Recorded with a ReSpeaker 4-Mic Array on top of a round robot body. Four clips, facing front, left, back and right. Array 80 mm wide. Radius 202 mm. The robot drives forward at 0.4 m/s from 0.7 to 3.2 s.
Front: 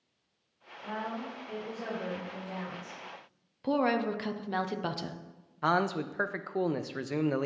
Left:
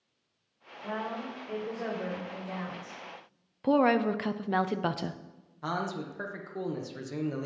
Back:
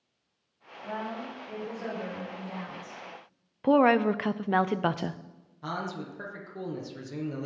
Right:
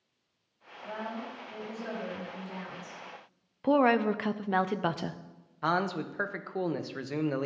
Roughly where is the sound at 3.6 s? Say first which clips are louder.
Even, back 7 dB; behind.